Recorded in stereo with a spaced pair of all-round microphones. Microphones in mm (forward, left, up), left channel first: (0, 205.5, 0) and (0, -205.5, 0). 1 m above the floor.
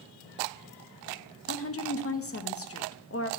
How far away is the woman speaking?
About 0.7 m.